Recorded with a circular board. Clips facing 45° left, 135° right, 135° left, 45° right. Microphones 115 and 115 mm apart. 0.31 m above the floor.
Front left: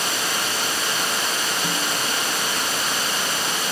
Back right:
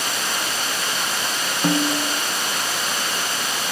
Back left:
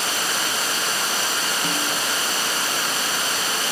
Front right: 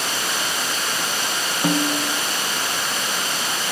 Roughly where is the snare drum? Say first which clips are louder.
Back right 5 dB, front right 5 dB; right.